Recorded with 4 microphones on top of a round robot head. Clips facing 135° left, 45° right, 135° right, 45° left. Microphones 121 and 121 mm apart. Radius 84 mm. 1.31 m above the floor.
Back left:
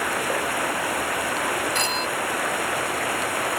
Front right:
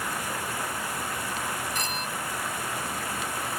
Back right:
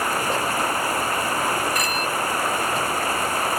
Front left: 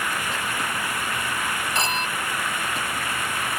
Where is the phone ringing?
105° left.